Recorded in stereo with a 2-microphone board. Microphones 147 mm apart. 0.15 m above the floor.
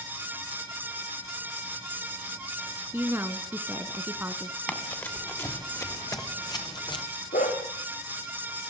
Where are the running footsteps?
10° left (ahead or behind), 4 m; by 7.0 s 35° left (ahead or behind), 3.5 m.